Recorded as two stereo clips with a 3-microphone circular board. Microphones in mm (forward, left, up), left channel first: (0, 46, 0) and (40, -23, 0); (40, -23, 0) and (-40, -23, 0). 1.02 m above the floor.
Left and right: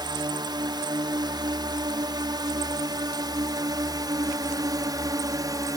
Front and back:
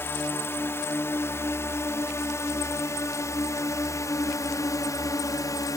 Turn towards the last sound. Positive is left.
turn(degrees=-35)